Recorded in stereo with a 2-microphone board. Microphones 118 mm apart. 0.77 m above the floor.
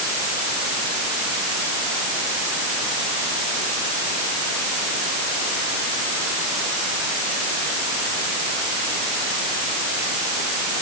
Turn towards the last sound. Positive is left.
No sound to turn to.